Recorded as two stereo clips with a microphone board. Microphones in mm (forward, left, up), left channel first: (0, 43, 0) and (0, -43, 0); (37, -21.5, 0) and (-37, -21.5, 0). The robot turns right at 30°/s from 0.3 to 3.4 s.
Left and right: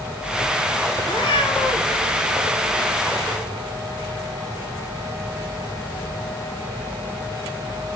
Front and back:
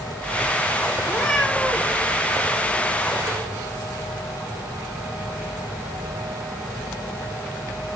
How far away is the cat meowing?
About 4.5 m.